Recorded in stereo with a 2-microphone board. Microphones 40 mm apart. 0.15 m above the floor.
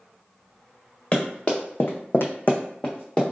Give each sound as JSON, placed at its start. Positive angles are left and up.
{"t": 1.1, "sound": "running footsteps", "side_deg": 40, "distance_m": 1.2}